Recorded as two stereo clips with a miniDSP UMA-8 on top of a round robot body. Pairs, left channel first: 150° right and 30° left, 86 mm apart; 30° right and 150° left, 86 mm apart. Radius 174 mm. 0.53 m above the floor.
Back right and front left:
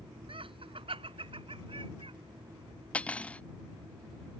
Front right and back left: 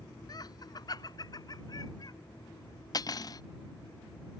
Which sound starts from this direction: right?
Cutlery clinking, at 2.9 s.